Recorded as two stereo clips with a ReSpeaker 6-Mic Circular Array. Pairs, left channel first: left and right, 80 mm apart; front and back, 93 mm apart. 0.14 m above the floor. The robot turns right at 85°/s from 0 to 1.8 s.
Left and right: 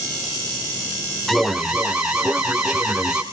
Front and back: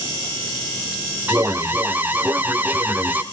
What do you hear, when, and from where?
1.3 s an alarm: 165° left, 1.4 m; by 3.2 s 150° right, 1.4 m